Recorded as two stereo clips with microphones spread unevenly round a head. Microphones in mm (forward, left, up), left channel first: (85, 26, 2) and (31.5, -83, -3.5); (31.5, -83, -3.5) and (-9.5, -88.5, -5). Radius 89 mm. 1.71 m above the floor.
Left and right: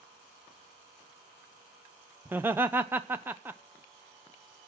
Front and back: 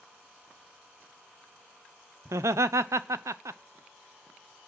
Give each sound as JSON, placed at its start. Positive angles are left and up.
{"t": 2.2, "sound": "laughter", "azimuth_deg": 165, "distance_m": 0.5}